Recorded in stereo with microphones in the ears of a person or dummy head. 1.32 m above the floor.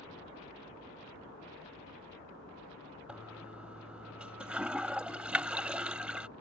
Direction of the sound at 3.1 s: Centre (ahead or behind).